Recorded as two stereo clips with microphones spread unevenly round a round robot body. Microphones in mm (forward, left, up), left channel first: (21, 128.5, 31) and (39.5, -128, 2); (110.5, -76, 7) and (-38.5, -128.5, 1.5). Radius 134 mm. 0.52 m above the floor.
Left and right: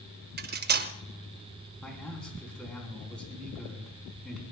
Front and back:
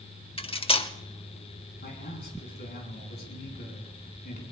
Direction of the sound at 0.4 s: 35° right.